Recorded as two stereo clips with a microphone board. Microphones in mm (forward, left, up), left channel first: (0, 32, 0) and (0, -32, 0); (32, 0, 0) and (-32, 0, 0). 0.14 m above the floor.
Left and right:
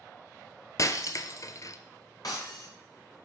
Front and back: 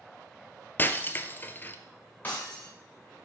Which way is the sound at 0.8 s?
60° left.